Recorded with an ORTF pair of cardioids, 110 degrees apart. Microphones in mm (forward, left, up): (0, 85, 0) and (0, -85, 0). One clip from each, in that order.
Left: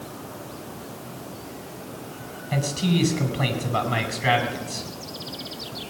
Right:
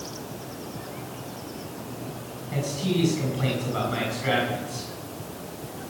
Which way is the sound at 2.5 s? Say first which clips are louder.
Left 2 dB; 55° left.